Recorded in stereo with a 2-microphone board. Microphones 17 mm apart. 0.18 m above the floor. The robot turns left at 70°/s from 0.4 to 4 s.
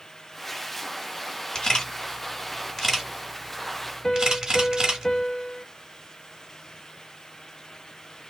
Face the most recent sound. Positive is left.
turn(degrees=25)  # may be behind; listen again after turning